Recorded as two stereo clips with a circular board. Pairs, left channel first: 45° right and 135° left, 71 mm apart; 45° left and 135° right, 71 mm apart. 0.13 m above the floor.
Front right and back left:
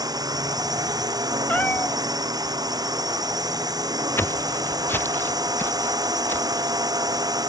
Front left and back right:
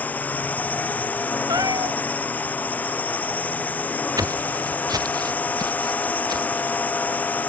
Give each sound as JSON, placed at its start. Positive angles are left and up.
{"t": 0.0, "sound": "a drone", "azimuth_deg": 115}
{"t": 1.5, "sound": "a cat meowing", "azimuth_deg": -110}
{"t": 4.2, "sound": "footsteps", "azimuth_deg": -100}